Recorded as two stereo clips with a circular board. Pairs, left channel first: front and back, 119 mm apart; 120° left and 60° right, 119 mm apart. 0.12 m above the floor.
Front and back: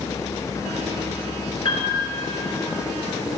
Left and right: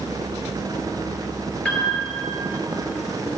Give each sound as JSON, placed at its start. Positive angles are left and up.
{"t": 1.6, "sound": "a piano", "azimuth_deg": 45, "distance_m": 1.7}